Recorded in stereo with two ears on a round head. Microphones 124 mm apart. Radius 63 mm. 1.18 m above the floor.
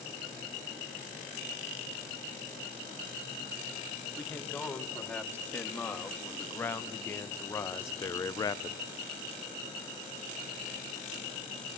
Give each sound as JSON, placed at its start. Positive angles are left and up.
{"t": 4.2, "sound": "a man speaking", "side_deg": 10, "distance_m": 3.5}